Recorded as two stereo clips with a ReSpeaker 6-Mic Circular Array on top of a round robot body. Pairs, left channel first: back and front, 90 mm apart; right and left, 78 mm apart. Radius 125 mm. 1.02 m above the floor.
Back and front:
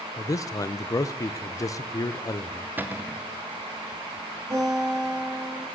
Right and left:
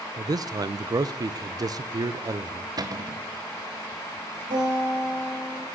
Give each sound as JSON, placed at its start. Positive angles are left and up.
{"t": 0.2, "sound": "a man speaking", "azimuth_deg": 125, "distance_m": 0.5}
{"t": 2.8, "sound": "a cupboard door", "azimuth_deg": 65, "distance_m": 1.0}
{"t": 4.5, "sound": "a guitar", "azimuth_deg": 60, "distance_m": 4.0}